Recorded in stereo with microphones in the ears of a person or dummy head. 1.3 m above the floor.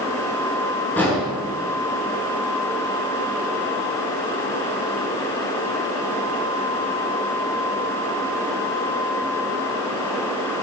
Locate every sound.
1.0 s an explosion: 10° left (ahead or behind), 7.5 m